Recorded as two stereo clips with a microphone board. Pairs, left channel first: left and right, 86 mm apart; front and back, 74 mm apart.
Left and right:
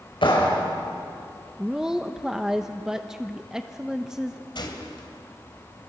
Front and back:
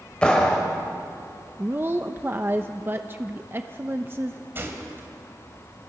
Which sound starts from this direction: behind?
A woman speaking, at 1.6 s.